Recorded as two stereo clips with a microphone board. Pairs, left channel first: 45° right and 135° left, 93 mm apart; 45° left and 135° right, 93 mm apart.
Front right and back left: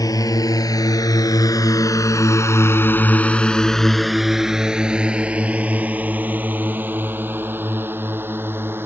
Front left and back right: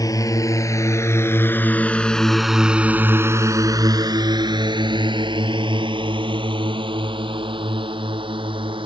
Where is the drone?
Straight ahead; by 8.8 s 160° right.